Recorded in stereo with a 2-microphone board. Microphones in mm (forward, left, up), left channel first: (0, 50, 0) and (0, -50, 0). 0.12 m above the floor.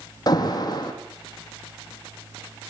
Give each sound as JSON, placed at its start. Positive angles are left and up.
{"t": 0.3, "sound": "an alarm", "side_deg": 40, "distance_m": 5.0}